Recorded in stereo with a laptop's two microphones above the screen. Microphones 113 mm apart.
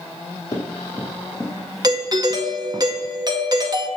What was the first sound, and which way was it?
Running footsteps, 30° left (ahead or behind).